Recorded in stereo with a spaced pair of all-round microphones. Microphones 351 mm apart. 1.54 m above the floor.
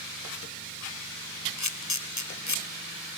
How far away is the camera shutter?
About 1.2 m.